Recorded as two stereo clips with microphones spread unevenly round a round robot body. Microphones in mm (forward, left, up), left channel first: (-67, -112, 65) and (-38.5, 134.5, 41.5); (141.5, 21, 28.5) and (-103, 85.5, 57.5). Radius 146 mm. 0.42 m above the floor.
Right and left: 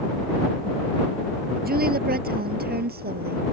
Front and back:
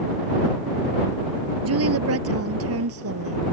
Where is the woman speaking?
135° left.